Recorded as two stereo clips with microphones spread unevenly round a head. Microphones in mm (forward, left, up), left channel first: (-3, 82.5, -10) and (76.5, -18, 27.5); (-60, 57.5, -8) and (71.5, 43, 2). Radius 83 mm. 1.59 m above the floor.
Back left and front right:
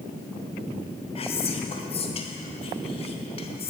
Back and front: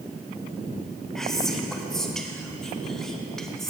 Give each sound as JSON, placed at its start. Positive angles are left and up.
{"t": 1.1, "sound": "whispering", "azimuth_deg": 85, "distance_m": 1.0}